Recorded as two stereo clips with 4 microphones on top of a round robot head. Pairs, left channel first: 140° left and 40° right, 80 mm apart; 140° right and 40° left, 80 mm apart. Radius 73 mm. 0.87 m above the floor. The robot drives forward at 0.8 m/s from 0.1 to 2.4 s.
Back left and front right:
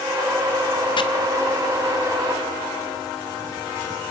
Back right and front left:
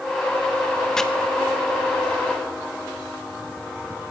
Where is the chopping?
140° left, 1.7 m.